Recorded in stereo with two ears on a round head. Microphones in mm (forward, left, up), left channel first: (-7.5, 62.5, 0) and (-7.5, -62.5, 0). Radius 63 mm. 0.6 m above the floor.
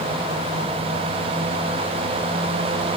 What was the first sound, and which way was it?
Only background noise.